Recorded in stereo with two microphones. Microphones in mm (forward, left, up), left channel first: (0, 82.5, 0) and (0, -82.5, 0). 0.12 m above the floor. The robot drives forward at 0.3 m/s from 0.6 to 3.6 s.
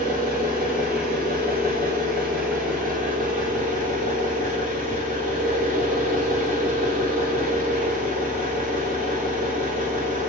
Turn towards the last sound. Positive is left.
turn(degrees=-50)  # may be behind; listen again after turning